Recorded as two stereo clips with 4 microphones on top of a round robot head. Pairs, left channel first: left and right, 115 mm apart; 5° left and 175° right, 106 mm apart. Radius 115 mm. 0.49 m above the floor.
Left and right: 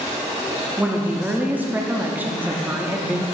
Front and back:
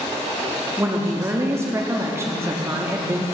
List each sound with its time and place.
0.8 s a woman speaking: 145° right, 0.8 m